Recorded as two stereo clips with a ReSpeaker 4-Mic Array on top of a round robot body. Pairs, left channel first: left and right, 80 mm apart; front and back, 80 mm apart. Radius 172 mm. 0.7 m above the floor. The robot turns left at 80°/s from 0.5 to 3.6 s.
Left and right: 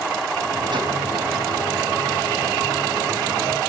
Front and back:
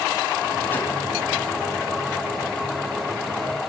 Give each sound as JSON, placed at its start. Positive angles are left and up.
{"t": 0.7, "sound": "a whoosh", "azimuth_deg": -60, "distance_m": 5.5}